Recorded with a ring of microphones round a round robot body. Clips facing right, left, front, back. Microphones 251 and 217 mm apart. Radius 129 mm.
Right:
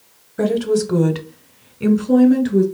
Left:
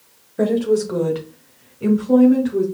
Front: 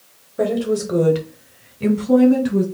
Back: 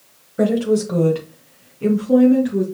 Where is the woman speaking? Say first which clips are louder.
Even, back 3 dB; 135° right, 0.9 m; by 2.6 s 40° right, 2.5 m.